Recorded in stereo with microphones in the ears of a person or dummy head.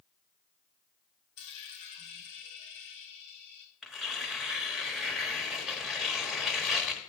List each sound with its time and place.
1.4 s a dropped coin: 30° left (ahead or behind), 1.9 m
3.8 s tearing paper: 5° right (ahead or behind), 1.1 m